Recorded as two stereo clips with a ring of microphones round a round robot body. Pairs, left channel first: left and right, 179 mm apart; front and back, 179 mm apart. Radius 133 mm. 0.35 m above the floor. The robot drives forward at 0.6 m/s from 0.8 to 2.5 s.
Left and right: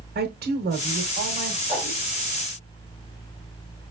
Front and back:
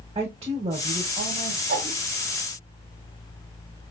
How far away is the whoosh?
About 2 m.